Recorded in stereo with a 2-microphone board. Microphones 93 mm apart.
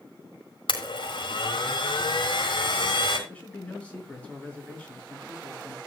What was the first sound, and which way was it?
A blender, 65° left (ahead or behind).